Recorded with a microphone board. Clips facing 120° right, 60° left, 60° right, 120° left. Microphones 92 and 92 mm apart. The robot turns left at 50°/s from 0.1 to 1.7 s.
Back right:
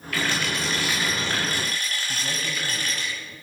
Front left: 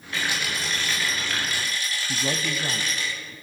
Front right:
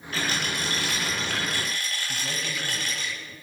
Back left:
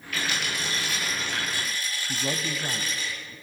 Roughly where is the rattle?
Ahead.